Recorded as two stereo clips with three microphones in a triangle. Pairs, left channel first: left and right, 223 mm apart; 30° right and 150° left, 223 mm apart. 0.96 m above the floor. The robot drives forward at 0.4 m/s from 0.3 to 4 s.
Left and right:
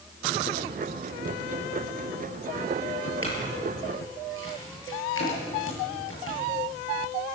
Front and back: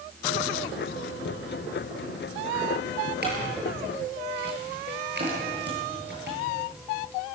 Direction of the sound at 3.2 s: 110° left.